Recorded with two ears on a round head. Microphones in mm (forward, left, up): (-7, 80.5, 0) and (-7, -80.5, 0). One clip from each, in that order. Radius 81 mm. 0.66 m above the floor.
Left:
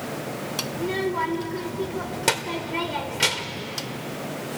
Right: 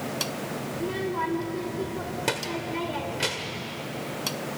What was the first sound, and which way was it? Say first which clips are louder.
A child speaking: left 3 dB; 25° left (ahead or behind).